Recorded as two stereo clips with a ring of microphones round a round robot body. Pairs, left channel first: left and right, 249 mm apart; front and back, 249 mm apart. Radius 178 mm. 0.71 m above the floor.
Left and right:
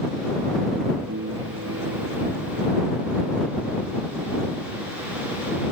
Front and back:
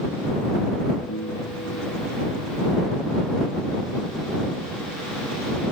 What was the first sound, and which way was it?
A piano, 55° right.